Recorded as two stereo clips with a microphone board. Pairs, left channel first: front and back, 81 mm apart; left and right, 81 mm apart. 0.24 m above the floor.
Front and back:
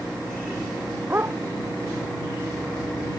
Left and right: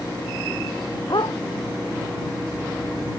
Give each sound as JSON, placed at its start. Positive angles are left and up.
{"t": 1.1, "sound": "a dog barking", "azimuth_deg": 120}